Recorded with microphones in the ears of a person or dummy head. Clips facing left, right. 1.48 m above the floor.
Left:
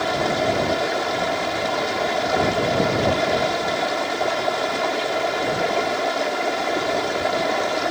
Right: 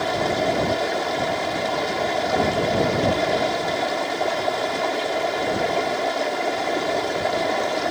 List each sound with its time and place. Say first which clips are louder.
0.0 s running water: left 1 dB; 5° left (ahead or behind)